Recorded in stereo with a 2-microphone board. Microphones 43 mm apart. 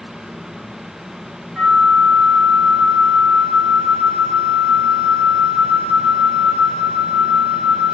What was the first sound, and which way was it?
A flute, 25° right (ahead or behind).